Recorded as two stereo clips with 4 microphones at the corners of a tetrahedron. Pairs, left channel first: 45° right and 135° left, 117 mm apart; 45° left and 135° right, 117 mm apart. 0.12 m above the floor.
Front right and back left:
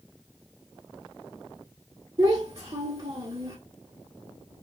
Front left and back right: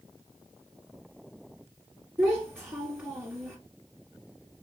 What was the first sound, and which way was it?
A child speaking, 155° left.